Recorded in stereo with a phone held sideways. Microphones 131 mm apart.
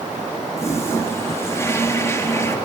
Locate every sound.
0.6 s a toilet flushing: 20° left (ahead or behind), 1.8 m